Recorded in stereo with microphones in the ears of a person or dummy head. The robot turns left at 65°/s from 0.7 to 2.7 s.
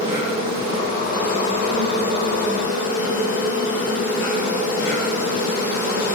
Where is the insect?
155° right, 3.5 m; by 6.2 s 75° left, 3.5 m.